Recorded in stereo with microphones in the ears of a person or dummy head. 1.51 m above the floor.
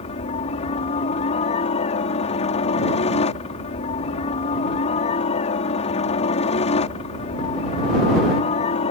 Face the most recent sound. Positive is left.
turn(degrees=40)  # may be behind; listen again after turning